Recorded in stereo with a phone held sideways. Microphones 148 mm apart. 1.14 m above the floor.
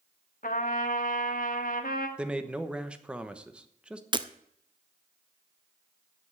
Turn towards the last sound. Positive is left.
turn(degrees=-30)  # may be behind; listen again after turning